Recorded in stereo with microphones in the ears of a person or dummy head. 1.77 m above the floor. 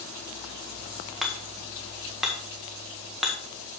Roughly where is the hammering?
Centre.